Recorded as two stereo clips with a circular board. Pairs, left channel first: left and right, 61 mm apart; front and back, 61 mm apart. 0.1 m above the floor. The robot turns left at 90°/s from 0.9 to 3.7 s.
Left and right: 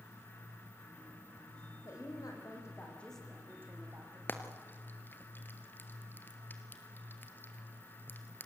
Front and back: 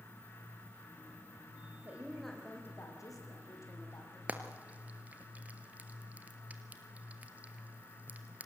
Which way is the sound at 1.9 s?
125° left.